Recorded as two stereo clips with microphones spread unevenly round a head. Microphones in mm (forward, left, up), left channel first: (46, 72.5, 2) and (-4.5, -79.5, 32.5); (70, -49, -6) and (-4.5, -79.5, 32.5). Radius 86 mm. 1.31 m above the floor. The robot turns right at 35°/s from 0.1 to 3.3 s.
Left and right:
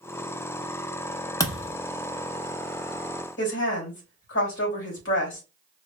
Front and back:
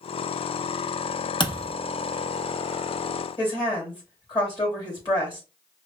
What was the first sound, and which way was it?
A thud, straight ahead.